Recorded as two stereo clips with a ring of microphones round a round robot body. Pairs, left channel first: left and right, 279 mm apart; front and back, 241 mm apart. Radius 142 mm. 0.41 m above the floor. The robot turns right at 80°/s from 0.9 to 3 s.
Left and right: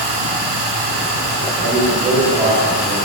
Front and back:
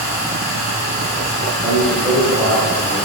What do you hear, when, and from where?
0.0 s running water: 95° right, 1.4 m; by 3.0 s 70° left, 1.4 m
1.6 s a man speaking: 105° right, 1.7 m; by 3.0 s 10° left, 1.7 m